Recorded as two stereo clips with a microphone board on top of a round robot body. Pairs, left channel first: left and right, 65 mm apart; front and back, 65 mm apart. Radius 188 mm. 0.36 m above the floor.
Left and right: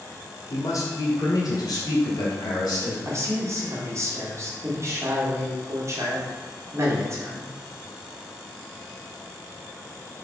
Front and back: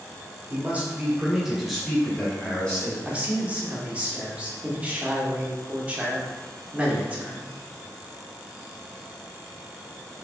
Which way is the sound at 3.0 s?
115° right.